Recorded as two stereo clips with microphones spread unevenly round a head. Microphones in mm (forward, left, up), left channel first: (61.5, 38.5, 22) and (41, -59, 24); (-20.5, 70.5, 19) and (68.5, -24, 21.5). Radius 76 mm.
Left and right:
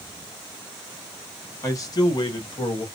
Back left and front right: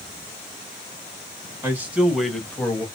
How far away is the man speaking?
About 1.5 m.